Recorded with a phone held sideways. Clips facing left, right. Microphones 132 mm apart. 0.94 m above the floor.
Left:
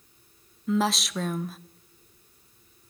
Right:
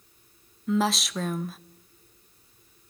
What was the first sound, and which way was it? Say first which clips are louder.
A woman speaking: even; centre (ahead or behind).